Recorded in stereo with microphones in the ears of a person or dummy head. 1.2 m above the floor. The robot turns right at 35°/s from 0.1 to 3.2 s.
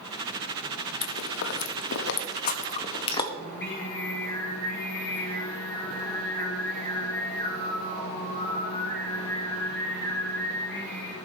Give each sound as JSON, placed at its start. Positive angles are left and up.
{"t": 1.0, "sound": "chewing", "side_deg": 60, "distance_m": 0.8}
{"t": 3.4, "sound": "singing", "side_deg": 10, "distance_m": 2.5}